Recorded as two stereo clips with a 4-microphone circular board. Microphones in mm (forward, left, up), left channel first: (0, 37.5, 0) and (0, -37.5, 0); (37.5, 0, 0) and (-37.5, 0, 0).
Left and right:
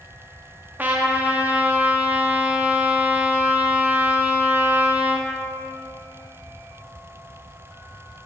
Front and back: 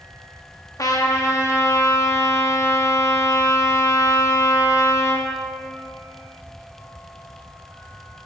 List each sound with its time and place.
0.8 s a trumpet: 30° right, 1.0 m